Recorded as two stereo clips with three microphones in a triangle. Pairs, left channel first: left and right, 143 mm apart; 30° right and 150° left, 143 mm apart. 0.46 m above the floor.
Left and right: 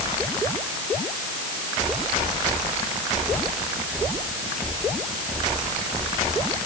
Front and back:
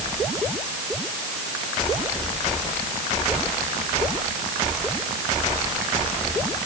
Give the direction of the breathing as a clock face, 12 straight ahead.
No breathing in this recording.